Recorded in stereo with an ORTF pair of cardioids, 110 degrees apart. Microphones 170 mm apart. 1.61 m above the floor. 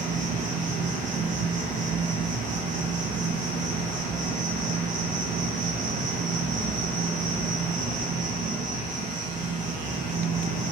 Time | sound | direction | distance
0.0 | an insect | 50° right | 0.7 m